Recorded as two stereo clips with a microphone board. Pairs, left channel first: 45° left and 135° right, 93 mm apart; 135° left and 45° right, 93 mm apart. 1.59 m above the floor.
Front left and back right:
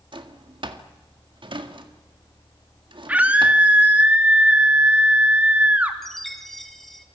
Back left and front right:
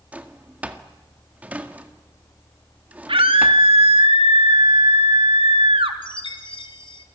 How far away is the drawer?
About 1.8 m.